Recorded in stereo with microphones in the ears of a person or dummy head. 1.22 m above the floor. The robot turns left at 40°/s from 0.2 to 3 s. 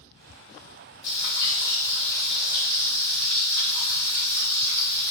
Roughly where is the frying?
Ahead left.